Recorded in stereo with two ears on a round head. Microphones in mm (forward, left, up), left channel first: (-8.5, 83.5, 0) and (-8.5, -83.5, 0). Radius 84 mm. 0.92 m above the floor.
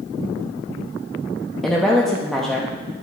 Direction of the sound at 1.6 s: Centre (ahead or behind).